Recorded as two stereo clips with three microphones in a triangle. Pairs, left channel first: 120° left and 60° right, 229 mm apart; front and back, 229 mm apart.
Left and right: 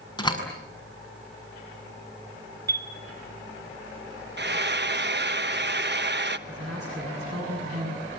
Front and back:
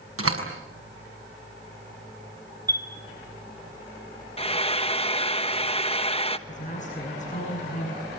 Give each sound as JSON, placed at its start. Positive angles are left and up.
{"t": 0.2, "sound": "a door slam", "azimuth_deg": -170, "distance_m": 6.5}
{"t": 2.7, "sound": "a chime", "azimuth_deg": -105, "distance_m": 4.5}
{"t": 4.4, "sound": "frying", "azimuth_deg": -55, "distance_m": 1.2}
{"t": 6.5, "sound": "a man speaking", "azimuth_deg": -60, "distance_m": 8.5}